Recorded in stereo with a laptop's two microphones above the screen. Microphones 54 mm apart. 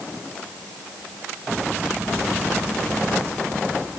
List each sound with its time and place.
Only background noise.